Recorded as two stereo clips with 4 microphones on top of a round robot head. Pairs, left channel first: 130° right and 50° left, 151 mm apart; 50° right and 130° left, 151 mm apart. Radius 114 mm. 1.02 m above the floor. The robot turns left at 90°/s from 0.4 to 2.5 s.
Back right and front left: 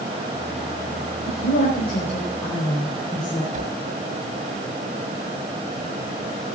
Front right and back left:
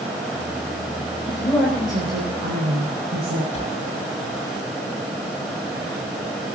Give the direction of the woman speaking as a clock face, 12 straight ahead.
4 o'clock.